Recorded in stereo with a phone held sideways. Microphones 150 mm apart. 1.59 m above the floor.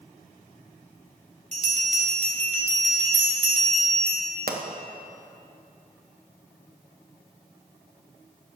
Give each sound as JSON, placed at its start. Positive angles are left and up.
{"t": 1.5, "sound": "a bell", "side_deg": -50, "distance_m": 3.0}
{"t": 4.5, "sound": "a pop", "side_deg": -85, "distance_m": 1.2}